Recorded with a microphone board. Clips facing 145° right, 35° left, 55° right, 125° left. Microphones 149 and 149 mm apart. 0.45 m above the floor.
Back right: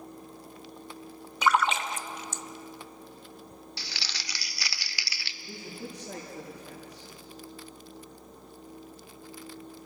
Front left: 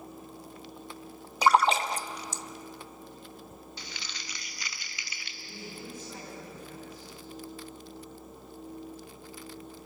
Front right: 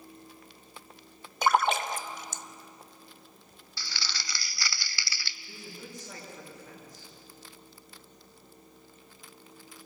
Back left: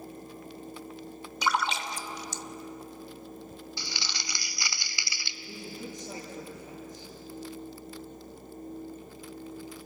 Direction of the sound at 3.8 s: 165° right.